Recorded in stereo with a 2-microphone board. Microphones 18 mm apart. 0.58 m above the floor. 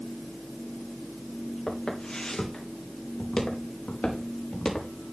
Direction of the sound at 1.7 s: 70° left (ahead or behind).